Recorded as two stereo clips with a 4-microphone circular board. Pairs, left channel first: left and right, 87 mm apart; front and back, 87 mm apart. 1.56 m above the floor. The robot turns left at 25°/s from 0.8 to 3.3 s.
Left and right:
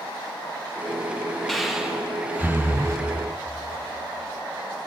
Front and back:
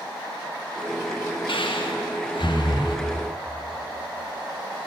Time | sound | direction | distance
1.5 | breathing | 5° left | 0.9 m